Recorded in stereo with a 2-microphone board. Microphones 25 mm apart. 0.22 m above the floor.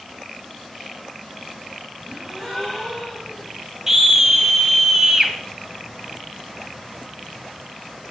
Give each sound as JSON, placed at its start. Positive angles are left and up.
{"t": 2.0, "sound": "a gasp", "side_deg": 15, "distance_m": 5.0}
{"t": 3.9, "sound": "a scream", "side_deg": -20, "distance_m": 1.3}